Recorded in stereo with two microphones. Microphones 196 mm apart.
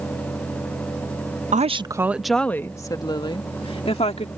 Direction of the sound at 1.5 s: 40° right (ahead or behind).